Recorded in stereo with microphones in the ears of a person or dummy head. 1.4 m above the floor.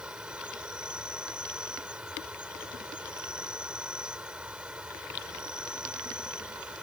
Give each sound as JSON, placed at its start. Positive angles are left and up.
{"t": 0.0, "sound": "an insect", "side_deg": -5}